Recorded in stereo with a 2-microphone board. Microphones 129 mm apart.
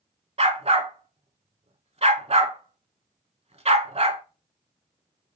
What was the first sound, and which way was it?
A dog barking, 55° right (ahead or behind).